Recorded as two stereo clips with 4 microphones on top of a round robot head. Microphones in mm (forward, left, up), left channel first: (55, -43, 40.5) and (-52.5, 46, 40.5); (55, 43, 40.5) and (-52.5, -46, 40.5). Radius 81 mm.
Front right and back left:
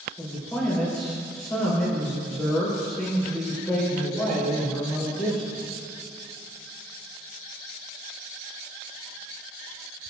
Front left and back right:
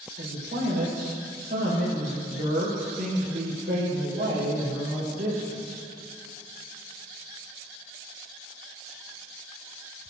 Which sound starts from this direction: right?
A man speaking, at 0.2 s.